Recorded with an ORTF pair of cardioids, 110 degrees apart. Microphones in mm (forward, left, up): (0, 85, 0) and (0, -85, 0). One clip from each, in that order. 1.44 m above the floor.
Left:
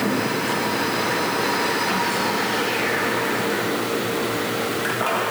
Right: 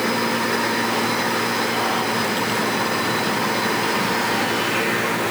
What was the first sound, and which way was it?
Only background noise.